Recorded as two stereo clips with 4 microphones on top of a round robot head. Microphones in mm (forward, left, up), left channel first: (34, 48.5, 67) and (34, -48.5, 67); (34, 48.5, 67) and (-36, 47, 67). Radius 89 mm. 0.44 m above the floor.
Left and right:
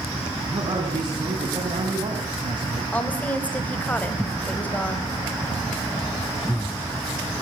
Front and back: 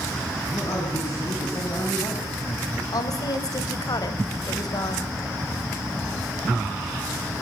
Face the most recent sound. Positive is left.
turn(degrees=15)